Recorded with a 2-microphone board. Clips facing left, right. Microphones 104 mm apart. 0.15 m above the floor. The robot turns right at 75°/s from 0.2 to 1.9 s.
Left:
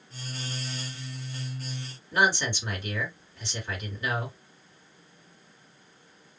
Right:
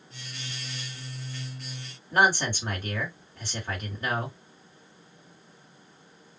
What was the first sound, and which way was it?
A man speaking, 45° right (ahead or behind).